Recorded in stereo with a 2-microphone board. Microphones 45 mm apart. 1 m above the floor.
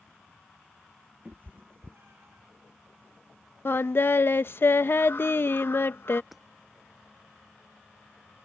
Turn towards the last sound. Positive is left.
turn(degrees=0)  # may be behind; listen again after turning